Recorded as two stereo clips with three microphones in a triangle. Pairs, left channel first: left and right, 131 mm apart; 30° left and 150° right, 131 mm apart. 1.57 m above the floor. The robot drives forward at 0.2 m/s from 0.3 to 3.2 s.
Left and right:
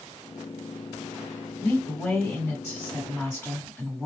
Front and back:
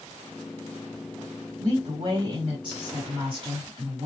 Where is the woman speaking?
160° left, 2.5 m.